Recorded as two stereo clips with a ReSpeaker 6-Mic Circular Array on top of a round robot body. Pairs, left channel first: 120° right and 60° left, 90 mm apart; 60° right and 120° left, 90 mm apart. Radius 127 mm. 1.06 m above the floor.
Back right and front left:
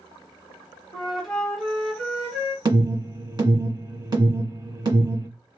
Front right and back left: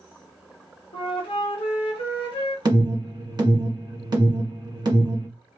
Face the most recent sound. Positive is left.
turn(degrees=90)